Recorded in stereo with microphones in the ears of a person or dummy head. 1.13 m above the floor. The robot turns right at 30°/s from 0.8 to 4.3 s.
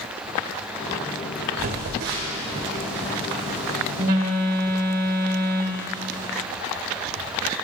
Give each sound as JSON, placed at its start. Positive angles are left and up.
{"t": 1.6, "sound": "a phone buzzing", "azimuth_deg": -130, "distance_m": 2.0}